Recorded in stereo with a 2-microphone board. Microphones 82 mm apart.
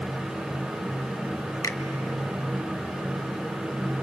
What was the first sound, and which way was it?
A finger snap, 40° left (ahead or behind).